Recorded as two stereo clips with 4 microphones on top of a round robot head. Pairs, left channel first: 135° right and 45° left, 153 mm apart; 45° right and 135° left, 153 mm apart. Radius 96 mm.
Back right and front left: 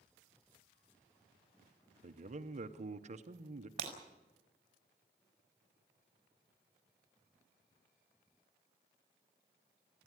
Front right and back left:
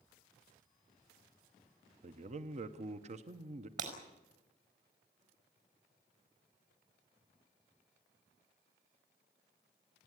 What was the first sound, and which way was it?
A man speaking, 90° left.